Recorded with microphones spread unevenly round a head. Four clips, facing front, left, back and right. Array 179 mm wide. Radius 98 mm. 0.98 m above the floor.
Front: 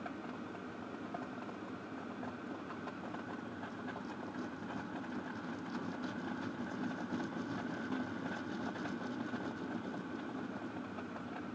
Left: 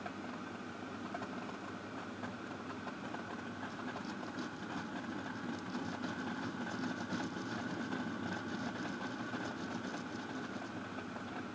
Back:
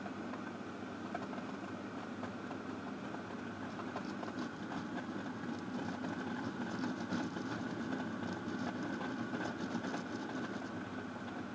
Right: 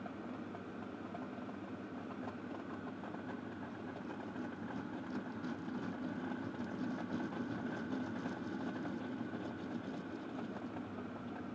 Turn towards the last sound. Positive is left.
No sound to turn to.